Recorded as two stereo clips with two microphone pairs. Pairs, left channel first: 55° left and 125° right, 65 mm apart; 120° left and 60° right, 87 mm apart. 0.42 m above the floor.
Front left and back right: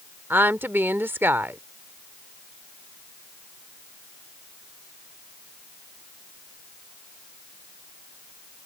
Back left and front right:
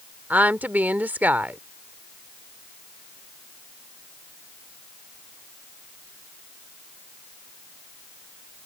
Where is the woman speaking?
115° right.